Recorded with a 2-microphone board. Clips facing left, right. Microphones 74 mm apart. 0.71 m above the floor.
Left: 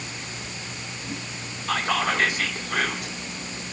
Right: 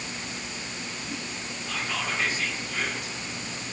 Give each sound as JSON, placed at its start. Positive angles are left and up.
{"t": 1.7, "sound": "whispering", "side_deg": 70, "distance_m": 1.6}